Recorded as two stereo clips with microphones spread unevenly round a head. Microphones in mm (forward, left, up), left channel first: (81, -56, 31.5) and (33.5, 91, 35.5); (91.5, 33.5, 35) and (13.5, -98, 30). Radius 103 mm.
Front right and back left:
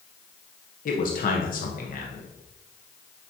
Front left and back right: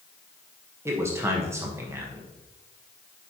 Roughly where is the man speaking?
Ahead right.